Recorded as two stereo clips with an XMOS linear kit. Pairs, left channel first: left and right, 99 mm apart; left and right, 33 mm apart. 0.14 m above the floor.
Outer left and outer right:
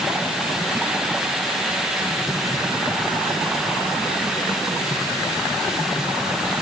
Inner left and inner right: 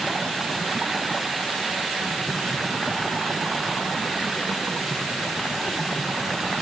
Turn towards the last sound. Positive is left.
No sound to turn to.